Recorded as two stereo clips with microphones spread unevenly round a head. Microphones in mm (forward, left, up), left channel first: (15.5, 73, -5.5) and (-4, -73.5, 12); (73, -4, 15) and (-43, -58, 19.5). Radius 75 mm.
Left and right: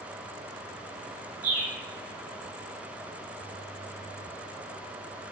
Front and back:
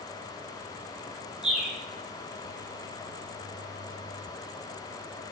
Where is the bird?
65° right, 4.5 m.